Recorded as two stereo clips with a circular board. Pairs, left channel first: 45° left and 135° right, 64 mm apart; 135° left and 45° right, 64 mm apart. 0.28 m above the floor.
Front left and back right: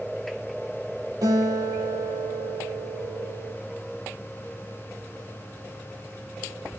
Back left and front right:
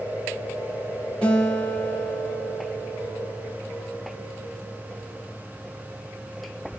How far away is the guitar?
About 7 m.